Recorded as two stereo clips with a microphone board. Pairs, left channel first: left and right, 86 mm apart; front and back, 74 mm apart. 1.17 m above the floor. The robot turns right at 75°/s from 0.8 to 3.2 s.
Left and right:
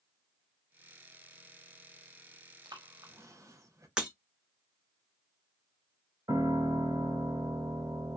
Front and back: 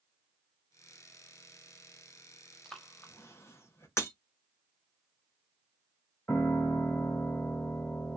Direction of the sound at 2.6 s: 85° right.